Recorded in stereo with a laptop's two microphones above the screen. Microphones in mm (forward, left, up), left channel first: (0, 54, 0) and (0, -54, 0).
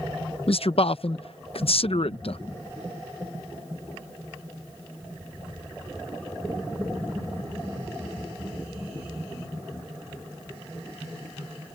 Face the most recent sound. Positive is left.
turn(degrees=60)  # may be behind; listen again after turning